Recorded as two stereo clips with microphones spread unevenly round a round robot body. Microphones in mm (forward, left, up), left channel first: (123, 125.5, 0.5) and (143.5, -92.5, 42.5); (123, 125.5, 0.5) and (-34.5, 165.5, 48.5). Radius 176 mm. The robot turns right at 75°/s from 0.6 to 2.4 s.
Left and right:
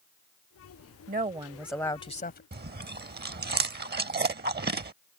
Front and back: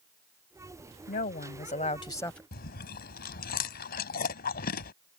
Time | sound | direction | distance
1.1 | a woman speaking | 40° right | ?
2.5 | chewing | 35° right | ?